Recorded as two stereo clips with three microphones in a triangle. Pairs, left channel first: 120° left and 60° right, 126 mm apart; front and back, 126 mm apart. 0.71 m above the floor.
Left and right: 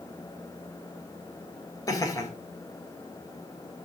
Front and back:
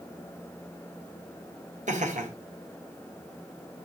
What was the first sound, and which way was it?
Laughter, straight behind.